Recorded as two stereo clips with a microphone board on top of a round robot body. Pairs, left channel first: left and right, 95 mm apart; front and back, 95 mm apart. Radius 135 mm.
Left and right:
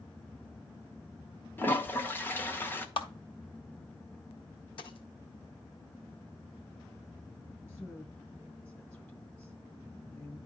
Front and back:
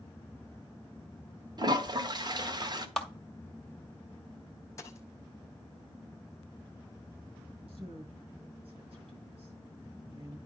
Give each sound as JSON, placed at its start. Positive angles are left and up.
{"t": 1.6, "sound": "a toilet flushing", "azimuth_deg": 155, "distance_m": 1.6}
{"t": 3.0, "sound": "a clap", "azimuth_deg": 85, "distance_m": 2.5}
{"t": 4.8, "sound": "a dropped coin", "azimuth_deg": 60, "distance_m": 1.3}
{"t": 7.7, "sound": "a woman speaking", "azimuth_deg": 160, "distance_m": 6.0}